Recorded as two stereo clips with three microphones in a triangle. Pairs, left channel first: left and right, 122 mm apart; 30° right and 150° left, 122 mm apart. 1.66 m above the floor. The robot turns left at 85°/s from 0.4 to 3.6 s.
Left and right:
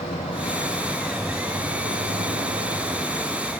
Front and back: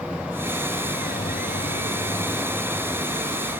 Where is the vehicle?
65° left; by 3.6 s 155° left.